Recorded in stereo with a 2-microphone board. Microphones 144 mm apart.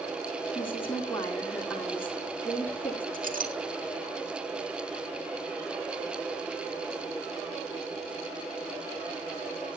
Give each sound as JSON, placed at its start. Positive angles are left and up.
{"t": 0.6, "sound": "a woman speaking", "side_deg": 15, "distance_m": 3.5}
{"t": 3.1, "sound": "a clink", "side_deg": -70, "distance_m": 1.7}